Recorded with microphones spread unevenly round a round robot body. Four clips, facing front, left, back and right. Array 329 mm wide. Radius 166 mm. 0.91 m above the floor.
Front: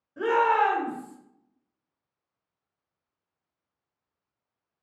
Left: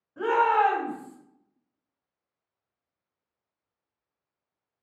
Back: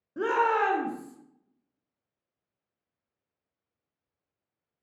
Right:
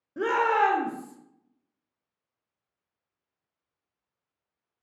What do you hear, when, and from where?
0.2 s a shout: 125° right, 0.8 m